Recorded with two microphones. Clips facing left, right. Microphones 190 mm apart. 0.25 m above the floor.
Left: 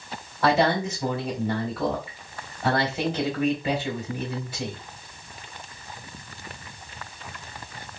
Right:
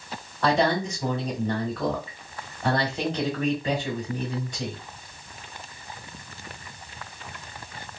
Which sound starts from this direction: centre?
A man speaking, at 0.4 s.